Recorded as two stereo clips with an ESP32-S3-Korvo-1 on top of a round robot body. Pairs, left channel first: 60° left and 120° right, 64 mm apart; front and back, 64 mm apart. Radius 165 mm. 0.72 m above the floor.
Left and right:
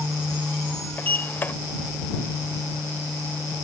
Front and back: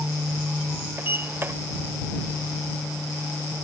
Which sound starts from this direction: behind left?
A sliding door, at 1.0 s.